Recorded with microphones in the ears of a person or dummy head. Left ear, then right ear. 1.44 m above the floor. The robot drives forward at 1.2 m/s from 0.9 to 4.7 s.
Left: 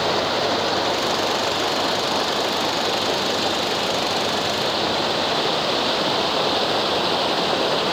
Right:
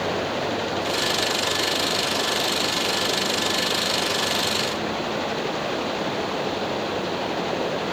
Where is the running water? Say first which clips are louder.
Left 5 dB; 40° left (ahead or behind); by 7.9 s 45° left (ahead or behind).